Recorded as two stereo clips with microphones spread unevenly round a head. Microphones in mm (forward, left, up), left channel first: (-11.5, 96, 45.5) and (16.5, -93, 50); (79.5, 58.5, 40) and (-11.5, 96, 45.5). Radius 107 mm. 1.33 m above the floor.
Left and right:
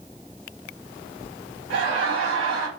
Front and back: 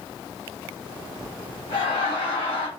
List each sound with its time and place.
1.7 s laughter: 60° right, 2 m